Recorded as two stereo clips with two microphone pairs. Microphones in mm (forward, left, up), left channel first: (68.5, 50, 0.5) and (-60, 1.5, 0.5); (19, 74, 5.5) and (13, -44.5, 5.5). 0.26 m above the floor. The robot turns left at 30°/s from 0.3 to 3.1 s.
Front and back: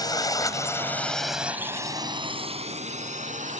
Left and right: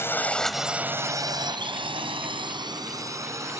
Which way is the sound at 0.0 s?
40° left.